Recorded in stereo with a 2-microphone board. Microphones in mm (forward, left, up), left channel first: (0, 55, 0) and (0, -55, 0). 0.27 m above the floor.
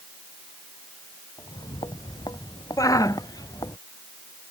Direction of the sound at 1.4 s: 40° left (ahead or behind).